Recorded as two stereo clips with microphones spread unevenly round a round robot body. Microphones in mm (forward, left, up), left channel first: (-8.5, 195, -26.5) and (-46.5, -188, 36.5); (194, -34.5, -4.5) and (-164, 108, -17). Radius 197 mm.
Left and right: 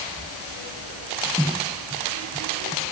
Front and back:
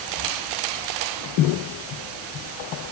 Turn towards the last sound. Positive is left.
No sound to turn to.